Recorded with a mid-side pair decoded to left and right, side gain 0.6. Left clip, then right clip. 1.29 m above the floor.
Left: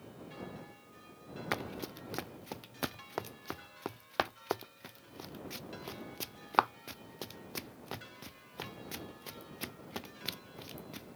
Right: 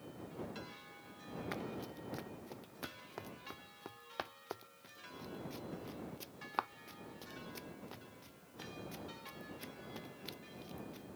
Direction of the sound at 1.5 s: 50° left.